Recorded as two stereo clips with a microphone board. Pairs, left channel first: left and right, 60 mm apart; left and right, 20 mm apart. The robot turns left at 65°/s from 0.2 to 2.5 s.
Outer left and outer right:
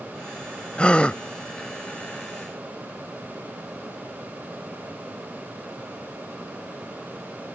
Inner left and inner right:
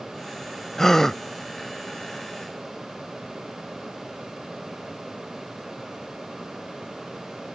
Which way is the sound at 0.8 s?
20° left (ahead or behind).